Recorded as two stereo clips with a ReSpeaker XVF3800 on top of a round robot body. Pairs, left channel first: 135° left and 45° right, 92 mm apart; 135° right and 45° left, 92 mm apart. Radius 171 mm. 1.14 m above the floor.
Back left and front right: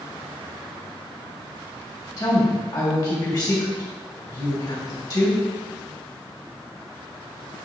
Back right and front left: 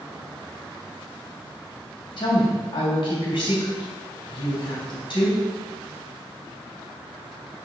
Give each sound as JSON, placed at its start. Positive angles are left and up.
{"t": 2.2, "sound": "a woman speaking", "azimuth_deg": -175, "distance_m": 2.0}